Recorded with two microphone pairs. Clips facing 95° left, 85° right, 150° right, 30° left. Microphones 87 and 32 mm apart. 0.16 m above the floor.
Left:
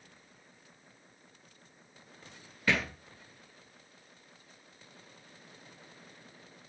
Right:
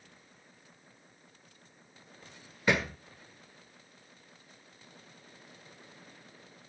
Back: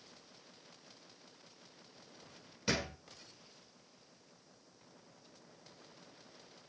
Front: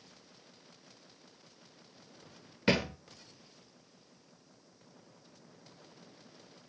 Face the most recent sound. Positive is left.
turn(degrees=-10)